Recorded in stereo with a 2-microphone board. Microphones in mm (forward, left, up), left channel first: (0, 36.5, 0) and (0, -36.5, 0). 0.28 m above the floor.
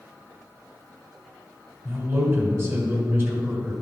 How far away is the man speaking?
About 2 m.